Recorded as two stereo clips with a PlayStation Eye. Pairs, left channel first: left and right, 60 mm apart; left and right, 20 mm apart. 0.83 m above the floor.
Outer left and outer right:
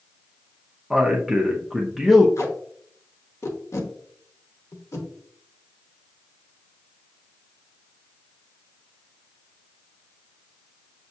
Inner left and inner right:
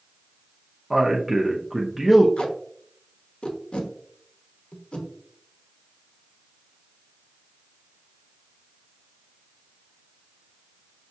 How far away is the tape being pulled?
About 0.8 m.